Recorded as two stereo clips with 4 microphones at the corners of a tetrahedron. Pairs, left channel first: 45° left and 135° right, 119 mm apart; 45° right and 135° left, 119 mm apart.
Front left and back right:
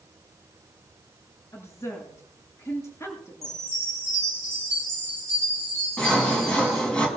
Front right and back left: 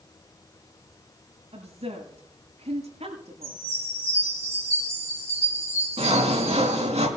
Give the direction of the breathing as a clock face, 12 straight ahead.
I don't hear breathing.